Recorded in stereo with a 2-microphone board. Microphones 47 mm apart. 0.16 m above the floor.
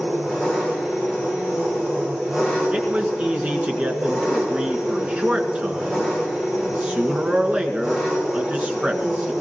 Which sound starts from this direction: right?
A man speaking, at 2.7 s.